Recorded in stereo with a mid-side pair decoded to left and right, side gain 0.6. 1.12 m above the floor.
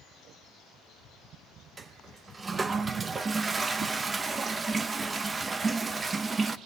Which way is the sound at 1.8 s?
25° right.